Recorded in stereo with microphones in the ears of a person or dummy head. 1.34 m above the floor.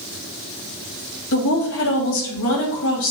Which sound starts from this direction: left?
A woman speaking, at 1.3 s.